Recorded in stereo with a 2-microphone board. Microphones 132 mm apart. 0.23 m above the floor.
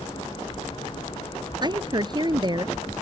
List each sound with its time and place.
1.6 s a woman speaking: 35° right (ahead or behind)